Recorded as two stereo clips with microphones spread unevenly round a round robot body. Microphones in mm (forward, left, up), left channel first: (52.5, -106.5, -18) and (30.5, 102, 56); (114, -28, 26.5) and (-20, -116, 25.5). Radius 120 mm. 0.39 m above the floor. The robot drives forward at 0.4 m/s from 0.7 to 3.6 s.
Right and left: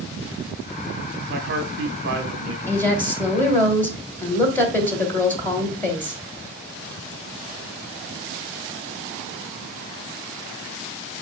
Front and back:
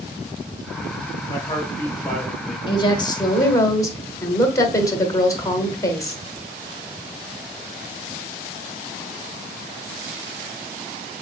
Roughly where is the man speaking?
Ahead left.